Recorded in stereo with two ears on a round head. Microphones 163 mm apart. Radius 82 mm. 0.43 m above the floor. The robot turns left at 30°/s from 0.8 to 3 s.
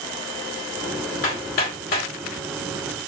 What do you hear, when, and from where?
1.2 s hammering: 50° left (ahead or behind), 2 m; by 2.1 s 60° left (ahead or behind), 2 m